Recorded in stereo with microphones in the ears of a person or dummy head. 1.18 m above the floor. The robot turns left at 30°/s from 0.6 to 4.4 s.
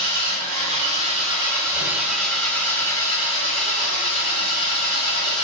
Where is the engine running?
130° right, 1.3 m; by 5.4 s 115° left, 1.3 m.